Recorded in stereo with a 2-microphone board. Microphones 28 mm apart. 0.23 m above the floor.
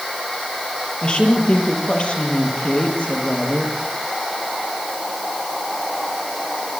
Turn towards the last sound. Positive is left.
turn(degrees=50)  # may be behind; listen again after turning